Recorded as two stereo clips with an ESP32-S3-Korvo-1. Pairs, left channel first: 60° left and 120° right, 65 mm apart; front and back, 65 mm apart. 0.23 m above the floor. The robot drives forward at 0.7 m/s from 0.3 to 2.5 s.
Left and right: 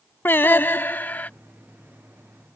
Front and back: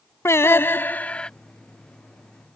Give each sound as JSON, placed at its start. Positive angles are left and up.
{"t": 0.2, "sound": "singing", "azimuth_deg": 20}